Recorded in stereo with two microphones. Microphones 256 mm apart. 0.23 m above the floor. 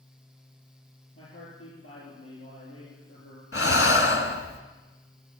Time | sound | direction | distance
1.1 | a man speaking | 65° left (ahead or behind) | 6 m
3.5 | breathing | 65° left (ahead or behind) | 1.2 m